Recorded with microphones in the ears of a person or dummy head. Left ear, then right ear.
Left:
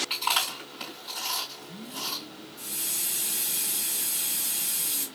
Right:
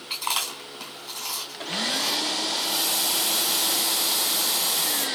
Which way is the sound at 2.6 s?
5° left (ahead or behind).